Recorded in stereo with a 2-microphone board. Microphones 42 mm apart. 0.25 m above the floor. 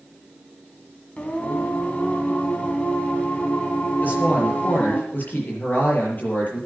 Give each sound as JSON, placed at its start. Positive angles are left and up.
{"t": 1.2, "sound": "singing", "side_deg": 30, "distance_m": 2.5}
{"t": 4.0, "sound": "a woman speaking", "side_deg": 45, "distance_m": 7.0}